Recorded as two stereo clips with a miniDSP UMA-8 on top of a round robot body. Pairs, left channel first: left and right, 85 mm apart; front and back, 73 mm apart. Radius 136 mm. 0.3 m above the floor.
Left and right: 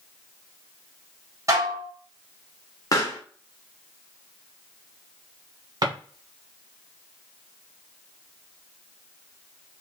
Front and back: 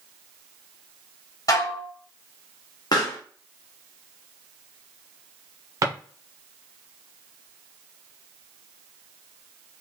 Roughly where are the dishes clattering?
Ahead right.